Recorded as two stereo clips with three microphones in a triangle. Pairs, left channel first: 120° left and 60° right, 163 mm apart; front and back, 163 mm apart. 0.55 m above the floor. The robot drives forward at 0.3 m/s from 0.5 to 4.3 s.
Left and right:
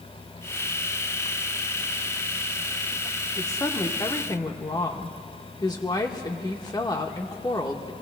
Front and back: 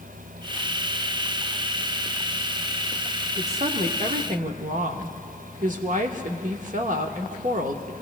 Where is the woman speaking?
Straight behind, 0.8 m.